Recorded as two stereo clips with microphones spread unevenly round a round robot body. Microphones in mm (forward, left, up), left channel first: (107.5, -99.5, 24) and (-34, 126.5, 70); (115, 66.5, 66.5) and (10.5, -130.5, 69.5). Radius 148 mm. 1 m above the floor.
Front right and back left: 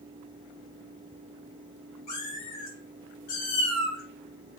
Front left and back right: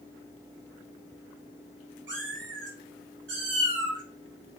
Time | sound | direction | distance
2.1 | a cat meowing | 95° right | 2.5 m